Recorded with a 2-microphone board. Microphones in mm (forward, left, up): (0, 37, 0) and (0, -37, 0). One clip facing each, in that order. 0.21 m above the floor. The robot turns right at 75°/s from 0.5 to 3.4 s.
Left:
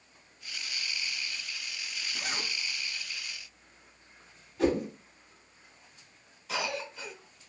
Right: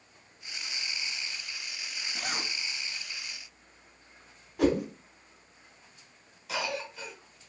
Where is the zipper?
5° left (ahead or behind), 2 m; by 2.5 s 20° right (ahead or behind), 2 m.